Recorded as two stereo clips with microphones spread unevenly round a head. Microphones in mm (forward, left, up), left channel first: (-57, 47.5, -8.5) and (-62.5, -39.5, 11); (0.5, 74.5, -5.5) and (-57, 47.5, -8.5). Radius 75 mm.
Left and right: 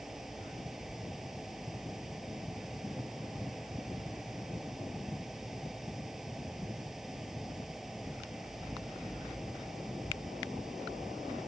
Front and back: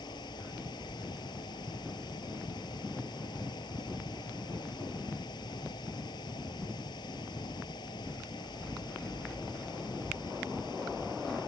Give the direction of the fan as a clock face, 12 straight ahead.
12 o'clock.